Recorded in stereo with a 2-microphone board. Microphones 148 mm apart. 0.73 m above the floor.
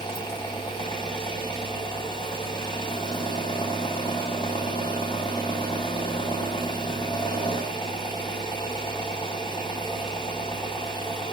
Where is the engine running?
30° left (ahead or behind), 1.9 m.